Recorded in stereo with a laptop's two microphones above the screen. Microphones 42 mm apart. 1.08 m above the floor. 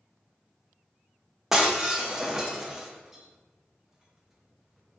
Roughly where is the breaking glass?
Centre.